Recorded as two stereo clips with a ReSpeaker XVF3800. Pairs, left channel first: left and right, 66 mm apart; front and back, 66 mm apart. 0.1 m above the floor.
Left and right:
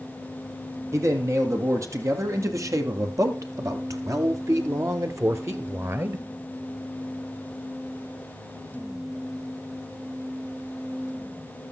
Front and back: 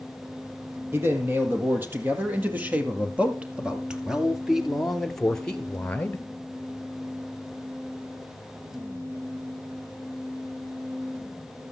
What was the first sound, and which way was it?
A man speaking, 130° right.